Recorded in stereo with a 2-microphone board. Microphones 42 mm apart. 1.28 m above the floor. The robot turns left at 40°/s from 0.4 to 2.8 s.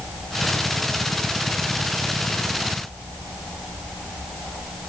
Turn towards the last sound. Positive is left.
No sound to turn to.